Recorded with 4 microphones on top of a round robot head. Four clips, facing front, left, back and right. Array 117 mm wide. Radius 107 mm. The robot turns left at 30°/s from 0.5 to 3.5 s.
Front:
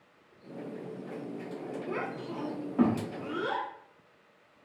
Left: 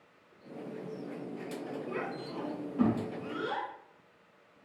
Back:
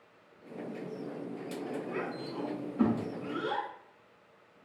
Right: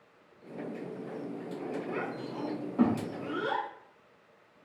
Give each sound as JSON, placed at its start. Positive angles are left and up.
{"t": 1.9, "sound": "a child speaking", "azimuth_deg": 0, "distance_m": 1.1}